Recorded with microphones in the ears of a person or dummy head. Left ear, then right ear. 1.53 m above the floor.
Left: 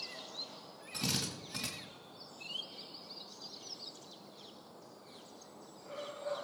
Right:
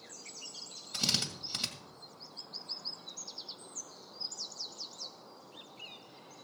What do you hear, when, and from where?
0.9 s a drill: 45° right (ahead or behind), 1.9 m